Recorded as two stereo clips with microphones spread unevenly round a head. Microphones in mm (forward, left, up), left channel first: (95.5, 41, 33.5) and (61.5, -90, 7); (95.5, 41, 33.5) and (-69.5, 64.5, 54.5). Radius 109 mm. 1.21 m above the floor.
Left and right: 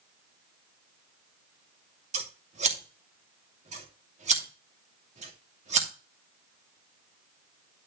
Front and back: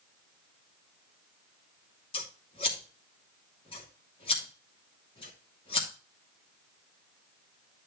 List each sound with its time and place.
2.1 s scissors: 70° right, 2.5 m